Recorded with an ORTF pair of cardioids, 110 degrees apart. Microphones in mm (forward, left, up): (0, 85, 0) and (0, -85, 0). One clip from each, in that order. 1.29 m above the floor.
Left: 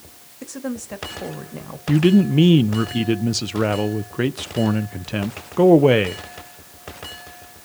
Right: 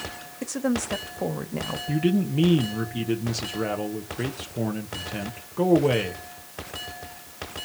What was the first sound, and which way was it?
A woman speaking, 20° right.